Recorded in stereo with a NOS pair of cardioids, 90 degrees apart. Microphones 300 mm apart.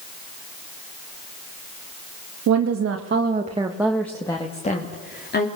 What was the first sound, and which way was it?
A woman speaking, 70° right.